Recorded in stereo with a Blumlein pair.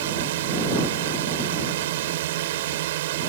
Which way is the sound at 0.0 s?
55° right.